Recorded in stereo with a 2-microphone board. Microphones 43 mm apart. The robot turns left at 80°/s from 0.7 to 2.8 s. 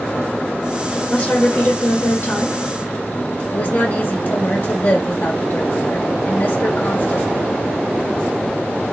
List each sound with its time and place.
1.1 s a woman speaking: 155° left, 1.1 m; by 2.6 s 40° left, 1.1 m
3.5 s a woman speaking: 45° left (ahead or behind), 0.9 m